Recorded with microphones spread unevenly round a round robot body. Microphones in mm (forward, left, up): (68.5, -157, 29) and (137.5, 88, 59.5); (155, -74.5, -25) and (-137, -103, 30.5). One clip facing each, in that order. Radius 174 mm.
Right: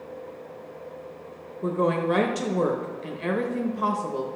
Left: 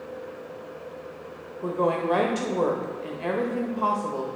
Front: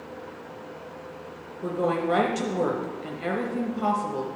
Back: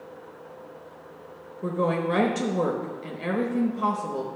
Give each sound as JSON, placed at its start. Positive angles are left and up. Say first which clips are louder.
{"t": 1.6, "sound": "a woman speaking", "louder": "right 1 dB, even", "azimuth_deg": -75, "distance_m": 1.0}